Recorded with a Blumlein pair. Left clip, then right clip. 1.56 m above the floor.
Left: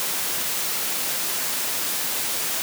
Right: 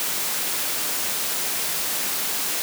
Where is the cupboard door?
No cupboard door in this recording.